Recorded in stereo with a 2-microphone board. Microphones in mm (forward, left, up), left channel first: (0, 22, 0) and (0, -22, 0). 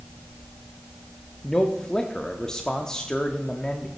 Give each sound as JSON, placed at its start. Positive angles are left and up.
{"t": 1.4, "sound": "a man speaking", "side_deg": 15, "distance_m": 0.7}